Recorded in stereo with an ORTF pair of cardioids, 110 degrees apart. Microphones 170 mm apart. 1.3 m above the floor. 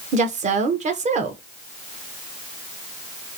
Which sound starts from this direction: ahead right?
A woman speaking, at 0.1 s.